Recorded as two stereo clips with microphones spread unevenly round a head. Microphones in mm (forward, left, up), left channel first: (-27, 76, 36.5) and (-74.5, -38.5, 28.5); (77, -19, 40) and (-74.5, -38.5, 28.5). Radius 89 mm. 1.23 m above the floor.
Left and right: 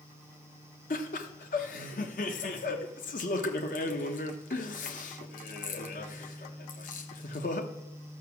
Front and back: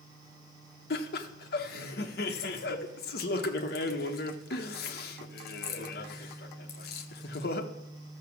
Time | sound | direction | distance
0.9 | laughter | 35° left | 1.0 m